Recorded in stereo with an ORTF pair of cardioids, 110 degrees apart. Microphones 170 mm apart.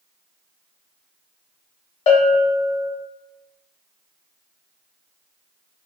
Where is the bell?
40° left, 0.8 m.